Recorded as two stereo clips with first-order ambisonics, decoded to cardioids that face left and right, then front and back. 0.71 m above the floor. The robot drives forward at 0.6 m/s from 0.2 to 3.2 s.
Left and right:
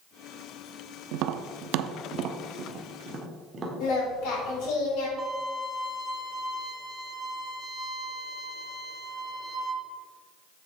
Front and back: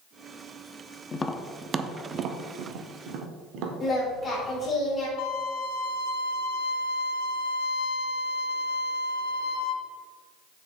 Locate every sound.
1.1 s tapping: 65° right, 0.6 m; by 3.7 s 155° right, 1.2 m
3.8 s singing: 75° left, 4 m
5.2 s a violin: 5° right, 2 m